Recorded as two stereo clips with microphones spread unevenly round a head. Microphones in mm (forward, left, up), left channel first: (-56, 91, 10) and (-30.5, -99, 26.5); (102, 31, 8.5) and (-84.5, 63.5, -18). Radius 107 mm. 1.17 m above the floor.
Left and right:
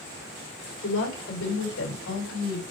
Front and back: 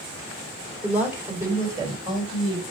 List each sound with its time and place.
0.8 s a woman speaking: 90° left, 4 m; by 2.6 s 110° left, 4 m